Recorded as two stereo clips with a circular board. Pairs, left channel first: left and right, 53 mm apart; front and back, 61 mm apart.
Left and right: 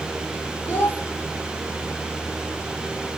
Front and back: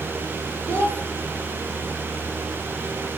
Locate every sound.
0.7 s a child speaking: 135° left, 1.1 m